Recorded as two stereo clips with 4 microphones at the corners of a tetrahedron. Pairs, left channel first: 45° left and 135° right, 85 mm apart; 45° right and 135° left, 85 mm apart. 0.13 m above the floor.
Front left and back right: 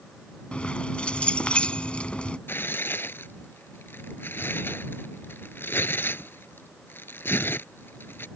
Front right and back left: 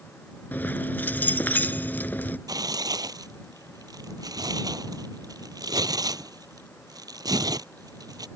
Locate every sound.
0.5 s keys jangling: 15° right
2.5 s tearing paper: 105° left